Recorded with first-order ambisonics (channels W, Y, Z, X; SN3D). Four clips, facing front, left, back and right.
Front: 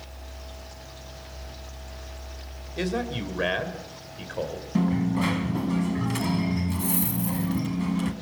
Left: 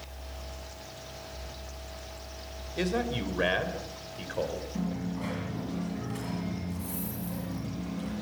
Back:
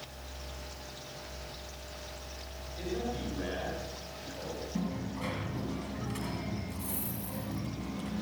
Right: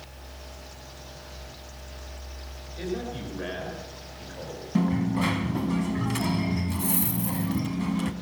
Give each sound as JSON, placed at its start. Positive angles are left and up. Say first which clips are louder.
{"t": 2.8, "sound": "a man speaking", "louder": "left 3 dB, front 7 dB", "azimuth_deg": 35, "distance_m": 4.0}
{"t": 4.8, "sound": "a dropped coin", "louder": "right 13 dB, front 15 dB", "azimuth_deg": -50, "distance_m": 2.0}